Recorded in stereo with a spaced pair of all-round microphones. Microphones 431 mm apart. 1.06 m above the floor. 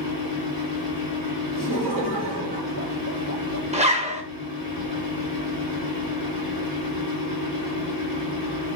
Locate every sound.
0.0 s a fan: 55° left (ahead or behind), 1.3 m
1.6 s laughter: 50° left (ahead or behind), 2 m
3.7 s a zipper: 15° right (ahead or behind), 0.6 m